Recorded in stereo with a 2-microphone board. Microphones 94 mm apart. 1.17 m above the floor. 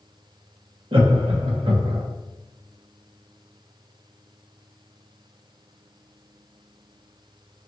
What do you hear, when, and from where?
0.9 s laughter: 60° right (ahead or behind), 0.7 m